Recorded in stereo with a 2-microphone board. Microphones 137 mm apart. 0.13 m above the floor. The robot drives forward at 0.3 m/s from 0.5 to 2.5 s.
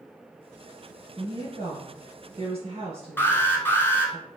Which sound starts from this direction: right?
A woman speaking, at 1.2 s.